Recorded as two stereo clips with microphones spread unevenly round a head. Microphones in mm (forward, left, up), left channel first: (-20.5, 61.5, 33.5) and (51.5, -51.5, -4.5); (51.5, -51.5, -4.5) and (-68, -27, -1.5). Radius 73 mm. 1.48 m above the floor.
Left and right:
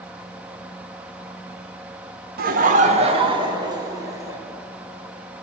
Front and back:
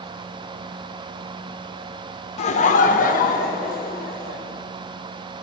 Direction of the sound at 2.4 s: 35° right.